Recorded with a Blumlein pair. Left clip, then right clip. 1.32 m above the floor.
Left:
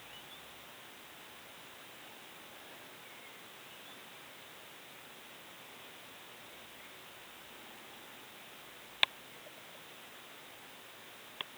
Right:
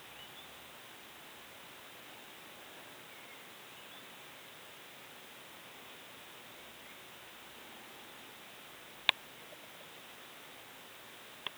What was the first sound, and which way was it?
Only background noise.